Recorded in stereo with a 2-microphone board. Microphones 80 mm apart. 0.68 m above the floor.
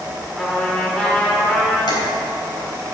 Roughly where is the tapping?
Left.